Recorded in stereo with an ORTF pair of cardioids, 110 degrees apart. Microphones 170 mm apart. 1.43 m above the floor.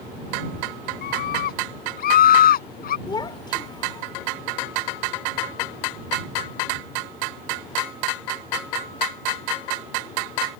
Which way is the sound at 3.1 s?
25° left.